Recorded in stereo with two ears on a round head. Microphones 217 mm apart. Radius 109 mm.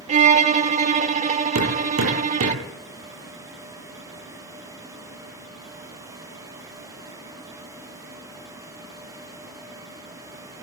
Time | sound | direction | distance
0.1 | a violin | 30° right (ahead or behind) | 1.1 m
1.6 | hammering | 60° right (ahead or behind) | 9.5 m